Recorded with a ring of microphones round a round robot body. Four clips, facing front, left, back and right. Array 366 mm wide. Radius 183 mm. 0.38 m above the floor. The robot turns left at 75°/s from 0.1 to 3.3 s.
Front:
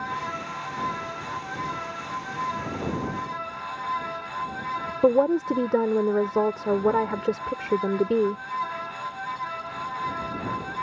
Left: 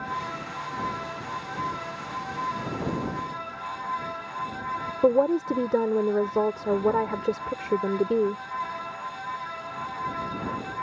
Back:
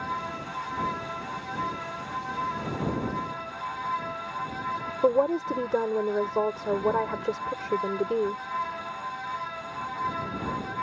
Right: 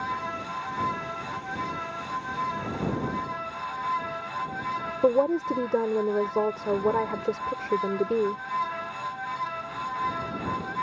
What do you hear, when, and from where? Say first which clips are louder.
5.0 s a woman speaking: left 1 dB, front 3 dB; 20° left